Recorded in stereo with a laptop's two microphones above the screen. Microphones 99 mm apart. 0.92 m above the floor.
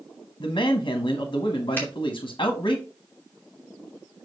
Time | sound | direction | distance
0.4 | a man speaking | 55° left (ahead or behind) | 1.4 m
1.8 | a finger snap | 20° left (ahead or behind) | 2.5 m